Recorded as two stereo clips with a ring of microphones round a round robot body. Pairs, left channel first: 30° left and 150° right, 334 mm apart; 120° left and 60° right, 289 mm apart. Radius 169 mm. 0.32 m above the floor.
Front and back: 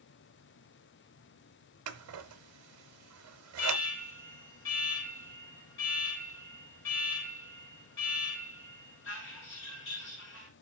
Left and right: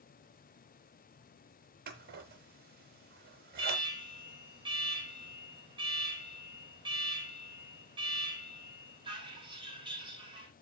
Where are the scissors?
115° right, 1.1 m.